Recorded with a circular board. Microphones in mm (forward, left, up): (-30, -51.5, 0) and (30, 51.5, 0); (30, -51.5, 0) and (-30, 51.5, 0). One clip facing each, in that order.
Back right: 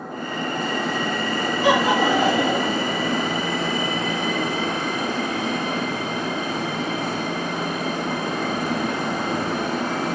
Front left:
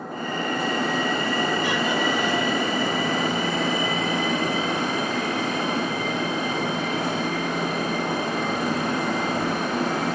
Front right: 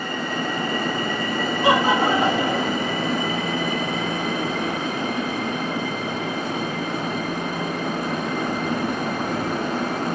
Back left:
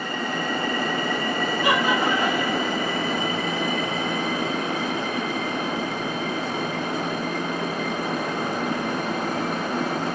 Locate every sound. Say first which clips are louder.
1.6 s laughter: back right 6 dB, front right 4 dB; 125° right